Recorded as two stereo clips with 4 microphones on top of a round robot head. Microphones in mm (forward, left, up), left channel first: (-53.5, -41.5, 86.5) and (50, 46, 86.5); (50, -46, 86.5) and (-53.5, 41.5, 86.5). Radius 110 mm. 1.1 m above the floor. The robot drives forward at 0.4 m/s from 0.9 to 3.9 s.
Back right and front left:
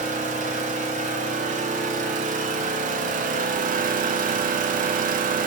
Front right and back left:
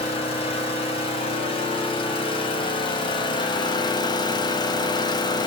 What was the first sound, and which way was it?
An engine running, 10° left.